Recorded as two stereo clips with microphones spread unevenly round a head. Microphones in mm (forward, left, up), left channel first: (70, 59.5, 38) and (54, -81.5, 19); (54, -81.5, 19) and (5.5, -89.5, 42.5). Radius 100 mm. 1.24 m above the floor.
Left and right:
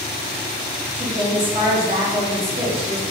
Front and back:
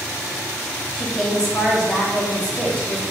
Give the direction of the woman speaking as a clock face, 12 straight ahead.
2 o'clock.